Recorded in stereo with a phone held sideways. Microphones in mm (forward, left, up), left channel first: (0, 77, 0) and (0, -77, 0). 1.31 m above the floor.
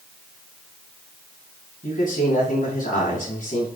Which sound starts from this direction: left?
A man speaking, at 1.8 s.